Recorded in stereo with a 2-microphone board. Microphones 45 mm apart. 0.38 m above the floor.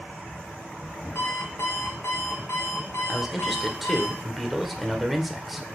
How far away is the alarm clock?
About 2.5 m.